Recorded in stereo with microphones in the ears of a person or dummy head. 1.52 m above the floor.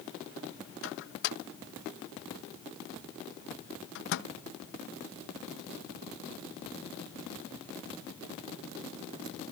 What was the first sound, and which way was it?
A microwave, 70° left (ahead or behind).